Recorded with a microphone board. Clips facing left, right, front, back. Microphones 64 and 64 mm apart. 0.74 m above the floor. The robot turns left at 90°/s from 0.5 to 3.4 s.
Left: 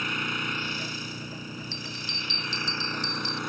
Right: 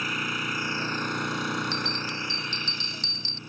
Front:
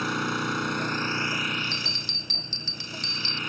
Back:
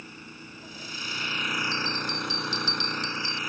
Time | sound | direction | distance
0.0 | an engine running | straight ahead | ?
1.7 | a bell | 30° left | ?